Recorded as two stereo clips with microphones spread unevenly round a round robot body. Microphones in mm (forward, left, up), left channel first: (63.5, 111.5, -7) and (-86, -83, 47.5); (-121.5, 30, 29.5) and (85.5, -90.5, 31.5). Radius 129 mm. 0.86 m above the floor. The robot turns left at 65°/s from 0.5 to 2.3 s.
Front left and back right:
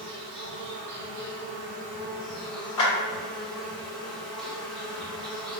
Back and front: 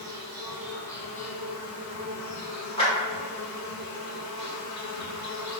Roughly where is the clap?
Left.